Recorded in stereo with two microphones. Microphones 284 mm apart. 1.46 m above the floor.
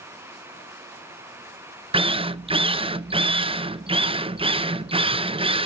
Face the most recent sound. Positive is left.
turn(degrees=-20)  # may be behind; listen again after turning